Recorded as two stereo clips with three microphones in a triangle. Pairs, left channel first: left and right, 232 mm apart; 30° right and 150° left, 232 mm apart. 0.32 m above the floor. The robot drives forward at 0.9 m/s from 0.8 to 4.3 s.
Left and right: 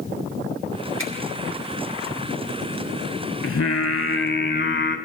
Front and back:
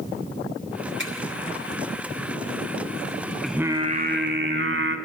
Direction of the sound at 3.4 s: 60° left.